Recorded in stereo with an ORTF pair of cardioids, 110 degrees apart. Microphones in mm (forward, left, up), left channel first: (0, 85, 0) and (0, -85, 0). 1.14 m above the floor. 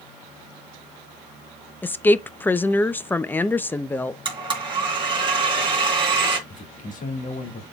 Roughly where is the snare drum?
No snare drum in this recording.